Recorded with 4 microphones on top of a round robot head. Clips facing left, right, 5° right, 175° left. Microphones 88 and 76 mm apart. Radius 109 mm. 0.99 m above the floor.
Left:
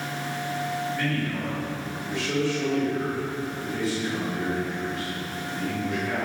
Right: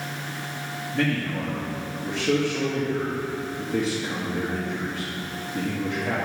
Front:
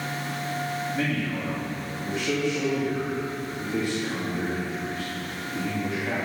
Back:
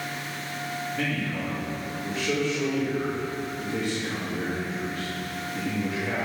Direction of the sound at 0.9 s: 65° right.